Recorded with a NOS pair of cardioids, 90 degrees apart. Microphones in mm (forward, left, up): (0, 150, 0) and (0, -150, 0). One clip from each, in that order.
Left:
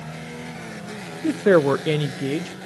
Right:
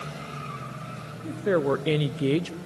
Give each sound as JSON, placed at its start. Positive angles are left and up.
{"t": 1.2, "sound": "a woman speaking", "azimuth_deg": 65, "distance_m": 0.6}